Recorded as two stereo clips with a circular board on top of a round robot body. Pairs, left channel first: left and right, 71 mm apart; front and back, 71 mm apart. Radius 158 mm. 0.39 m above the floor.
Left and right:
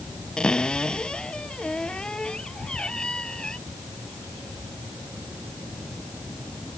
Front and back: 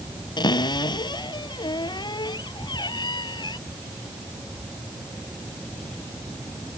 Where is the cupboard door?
10° left.